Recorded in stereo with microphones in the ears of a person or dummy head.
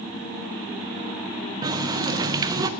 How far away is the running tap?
About 0.6 m.